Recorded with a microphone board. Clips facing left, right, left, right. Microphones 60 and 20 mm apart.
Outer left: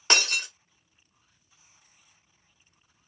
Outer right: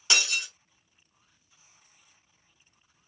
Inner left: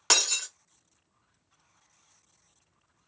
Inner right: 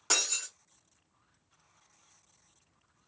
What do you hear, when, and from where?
0.1 s breaking glass: 50° left (ahead or behind), 1.0 m